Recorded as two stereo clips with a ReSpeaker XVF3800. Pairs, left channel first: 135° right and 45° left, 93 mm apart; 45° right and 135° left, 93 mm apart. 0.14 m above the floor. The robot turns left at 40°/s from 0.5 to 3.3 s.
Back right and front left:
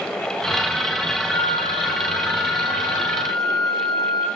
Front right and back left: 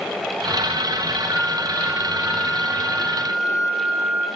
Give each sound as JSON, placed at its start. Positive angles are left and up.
{"t": 1.3, "sound": "a flute", "azimuth_deg": 95, "distance_m": 0.9}